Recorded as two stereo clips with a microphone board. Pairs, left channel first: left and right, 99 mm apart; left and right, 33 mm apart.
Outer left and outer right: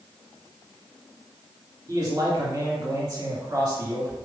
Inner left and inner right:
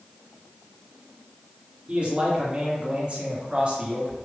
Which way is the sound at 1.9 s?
30° right (ahead or behind).